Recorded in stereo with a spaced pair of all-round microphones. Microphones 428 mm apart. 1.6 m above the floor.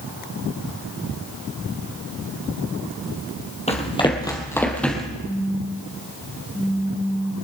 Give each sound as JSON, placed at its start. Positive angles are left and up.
{"t": 3.7, "sound": "running footsteps", "side_deg": 15, "distance_m": 2.5}
{"t": 5.2, "sound": "a phone buzzing", "side_deg": 5, "distance_m": 1.2}